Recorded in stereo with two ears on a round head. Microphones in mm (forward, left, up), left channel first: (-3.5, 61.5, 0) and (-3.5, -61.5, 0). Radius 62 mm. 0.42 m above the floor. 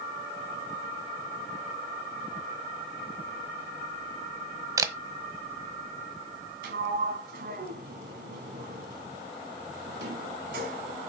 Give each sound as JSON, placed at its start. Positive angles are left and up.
{"t": 4.8, "sound": "a camera shutter", "side_deg": -25, "distance_m": 1.3}
{"t": 6.6, "sound": "a sliding door", "side_deg": -70, "distance_m": 3.0}